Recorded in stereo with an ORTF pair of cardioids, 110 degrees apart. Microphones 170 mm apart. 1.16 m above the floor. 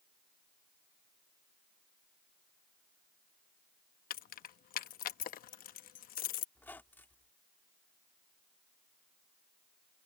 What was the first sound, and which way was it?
Keys jangling, 60° left.